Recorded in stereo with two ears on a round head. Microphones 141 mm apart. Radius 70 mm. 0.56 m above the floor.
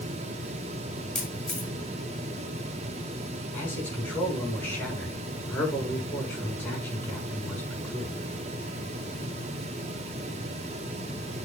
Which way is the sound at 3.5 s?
10° left (ahead or behind).